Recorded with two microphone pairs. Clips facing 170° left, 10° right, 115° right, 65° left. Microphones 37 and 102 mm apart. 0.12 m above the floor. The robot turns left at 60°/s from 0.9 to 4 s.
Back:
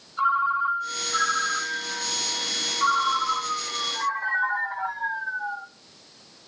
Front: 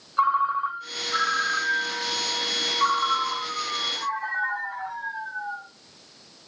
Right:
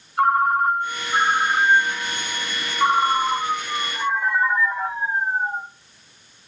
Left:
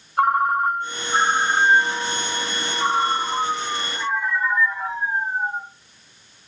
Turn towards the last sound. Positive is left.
turn(degrees=-150)